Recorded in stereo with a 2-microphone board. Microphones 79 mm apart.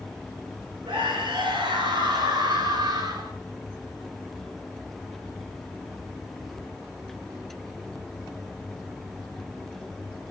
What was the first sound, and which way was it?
A scream, 75° right (ahead or behind).